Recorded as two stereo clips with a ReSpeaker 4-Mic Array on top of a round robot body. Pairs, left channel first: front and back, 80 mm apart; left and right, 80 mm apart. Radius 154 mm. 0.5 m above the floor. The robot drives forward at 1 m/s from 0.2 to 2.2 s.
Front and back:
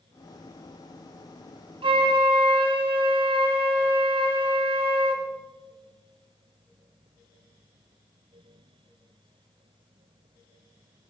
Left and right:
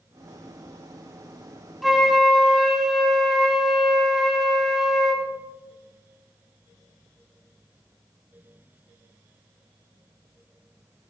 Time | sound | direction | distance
1.8 | a flute | straight behind | 1.0 m